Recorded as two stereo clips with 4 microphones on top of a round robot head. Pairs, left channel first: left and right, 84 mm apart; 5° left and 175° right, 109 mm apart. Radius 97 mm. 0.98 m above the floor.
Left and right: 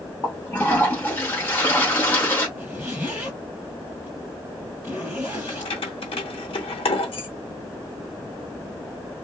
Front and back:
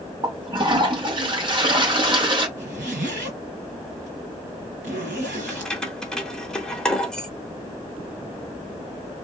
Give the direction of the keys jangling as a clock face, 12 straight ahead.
9 o'clock.